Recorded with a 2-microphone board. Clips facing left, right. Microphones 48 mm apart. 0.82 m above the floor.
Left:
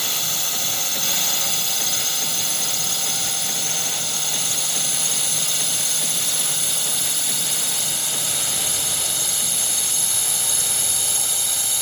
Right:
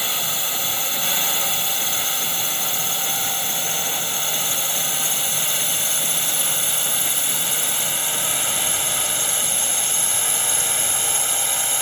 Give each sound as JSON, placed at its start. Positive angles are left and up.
{"t": 0.0, "sound": "a drone", "side_deg": -25}